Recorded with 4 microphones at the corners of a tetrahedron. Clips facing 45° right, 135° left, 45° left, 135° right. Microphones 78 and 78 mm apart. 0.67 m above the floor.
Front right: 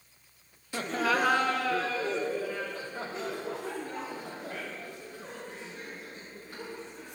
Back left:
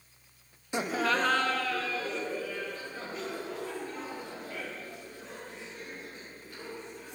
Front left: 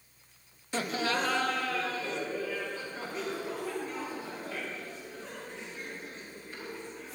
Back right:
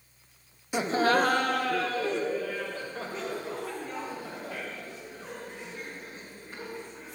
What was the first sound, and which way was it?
Laughter, 165° left.